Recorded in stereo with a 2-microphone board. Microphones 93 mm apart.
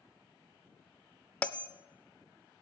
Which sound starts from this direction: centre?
A bell, at 1.4 s.